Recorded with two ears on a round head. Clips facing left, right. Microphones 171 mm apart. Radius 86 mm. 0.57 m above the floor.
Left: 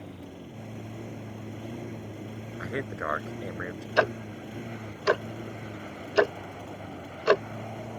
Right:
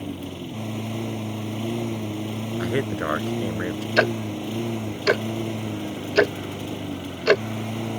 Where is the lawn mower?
85° right.